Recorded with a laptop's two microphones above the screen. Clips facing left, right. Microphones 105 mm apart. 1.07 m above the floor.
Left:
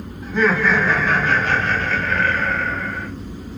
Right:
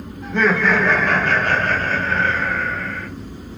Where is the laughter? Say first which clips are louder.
Even; 70° right (ahead or behind), 1.6 m; by 3.1 s 20° left (ahead or behind), 0.7 m.